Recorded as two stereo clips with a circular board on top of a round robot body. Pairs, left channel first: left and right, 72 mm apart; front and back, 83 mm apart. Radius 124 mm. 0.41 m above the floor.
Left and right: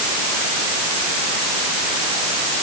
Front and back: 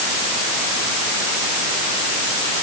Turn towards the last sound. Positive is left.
No sound to turn to.